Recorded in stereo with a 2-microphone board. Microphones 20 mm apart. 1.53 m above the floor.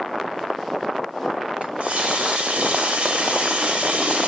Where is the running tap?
70° right (ahead or behind), 3 m.